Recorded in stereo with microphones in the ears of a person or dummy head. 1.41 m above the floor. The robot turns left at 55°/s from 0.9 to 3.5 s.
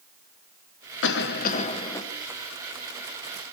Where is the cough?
70° left, 1.3 m; by 2.0 s 15° left, 1.3 m.